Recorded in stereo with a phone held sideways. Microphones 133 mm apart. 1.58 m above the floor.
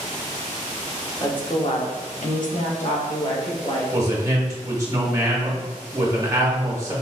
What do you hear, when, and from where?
1.2 s a woman speaking: 30° left (ahead or behind), 0.8 m; by 3.8 s 45° left (ahead or behind), 1.4 m
3.9 s a man speaking: 25° right (ahead or behind), 0.9 m